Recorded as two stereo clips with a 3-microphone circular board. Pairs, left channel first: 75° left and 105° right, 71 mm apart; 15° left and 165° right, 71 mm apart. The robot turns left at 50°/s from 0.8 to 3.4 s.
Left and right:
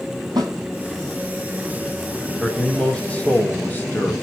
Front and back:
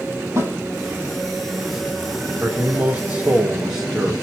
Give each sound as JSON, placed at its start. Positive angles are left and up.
{"t": 0.4, "sound": "a snare drum", "azimuth_deg": -115, "distance_m": 1.9}
{"t": 2.4, "sound": "a man speaking", "azimuth_deg": 165, "distance_m": 1.3}